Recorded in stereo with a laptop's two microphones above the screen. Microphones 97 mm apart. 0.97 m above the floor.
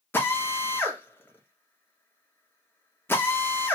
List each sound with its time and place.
0.1 s a drill: 25° left (ahead or behind), 1.2 m